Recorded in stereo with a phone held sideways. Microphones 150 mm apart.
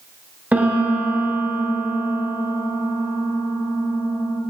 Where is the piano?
10° right (ahead or behind), 0.9 m.